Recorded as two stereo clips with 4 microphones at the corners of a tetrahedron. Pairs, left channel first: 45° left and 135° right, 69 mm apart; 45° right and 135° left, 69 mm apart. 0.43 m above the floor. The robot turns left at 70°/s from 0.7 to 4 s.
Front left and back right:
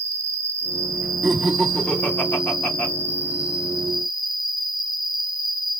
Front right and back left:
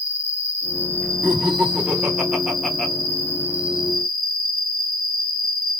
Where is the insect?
95° right, 0.9 m; by 5.8 s 35° left, 0.9 m.